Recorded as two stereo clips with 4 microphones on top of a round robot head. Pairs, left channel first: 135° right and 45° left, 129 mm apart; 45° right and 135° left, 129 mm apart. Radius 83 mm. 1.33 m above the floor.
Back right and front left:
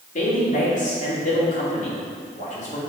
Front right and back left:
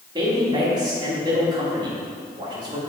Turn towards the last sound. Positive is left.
turn(degrees=-165)